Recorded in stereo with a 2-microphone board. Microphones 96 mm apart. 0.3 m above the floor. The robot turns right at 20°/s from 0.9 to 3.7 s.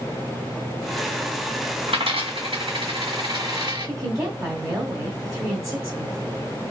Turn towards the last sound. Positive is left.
turn(degrees=-30)  # may be behind; listen again after turning